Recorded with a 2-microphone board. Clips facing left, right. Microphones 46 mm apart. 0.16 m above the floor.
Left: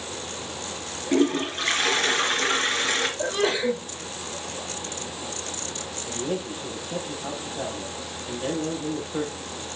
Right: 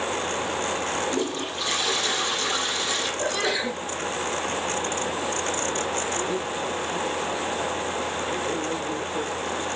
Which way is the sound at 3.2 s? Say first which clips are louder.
Even; 20° left (ahead or behind).